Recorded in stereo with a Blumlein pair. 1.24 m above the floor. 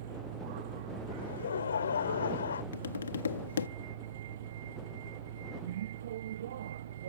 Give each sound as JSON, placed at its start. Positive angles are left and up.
{"t": 0.0, "sound": "a vehicle", "azimuth_deg": -55}
{"t": 1.2, "sound": "laughter", "azimuth_deg": 70}
{"t": 2.7, "sound": "tapping", "azimuth_deg": 70}